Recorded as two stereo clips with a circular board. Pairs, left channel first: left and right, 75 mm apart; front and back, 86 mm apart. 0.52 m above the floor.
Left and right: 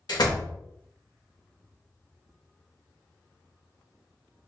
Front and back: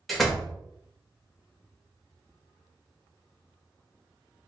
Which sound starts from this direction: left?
A door slam, at 0.1 s.